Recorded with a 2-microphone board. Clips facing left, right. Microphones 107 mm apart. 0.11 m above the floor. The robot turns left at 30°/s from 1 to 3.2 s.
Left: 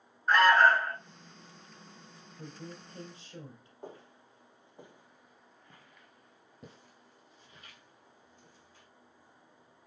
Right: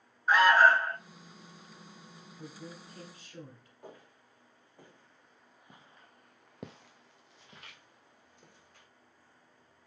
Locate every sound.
0.3 s an alarm: 5° right (ahead or behind), 0.8 m
2.4 s a woman speaking: 40° left (ahead or behind), 2.5 m; by 3.7 s 25° left (ahead or behind), 2.5 m
3.8 s footsteps: 30° left (ahead or behind), 1.6 m; by 8.9 s 60° right (ahead or behind), 2.0 m